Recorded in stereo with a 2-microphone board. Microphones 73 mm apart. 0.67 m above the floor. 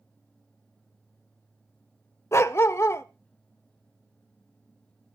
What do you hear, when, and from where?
2.3 s a dog barking: 40° left (ahead or behind), 0.5 m